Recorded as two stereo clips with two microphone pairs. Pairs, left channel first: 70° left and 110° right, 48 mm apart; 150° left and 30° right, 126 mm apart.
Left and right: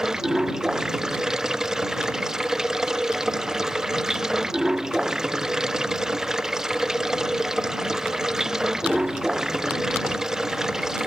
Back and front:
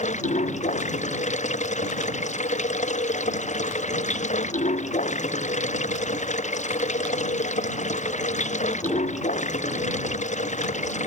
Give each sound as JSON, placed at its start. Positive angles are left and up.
{"t": 0.0, "sound": "running water", "azimuth_deg": 170}